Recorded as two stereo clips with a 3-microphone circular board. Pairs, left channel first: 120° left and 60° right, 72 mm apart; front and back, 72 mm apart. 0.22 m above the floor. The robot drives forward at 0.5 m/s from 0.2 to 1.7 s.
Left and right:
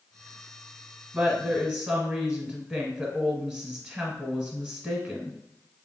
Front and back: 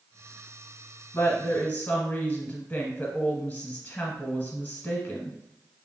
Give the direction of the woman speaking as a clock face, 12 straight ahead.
12 o'clock.